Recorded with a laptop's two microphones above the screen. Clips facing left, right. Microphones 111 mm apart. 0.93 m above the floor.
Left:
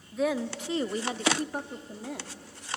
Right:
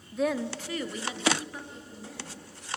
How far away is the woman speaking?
About 1.0 m.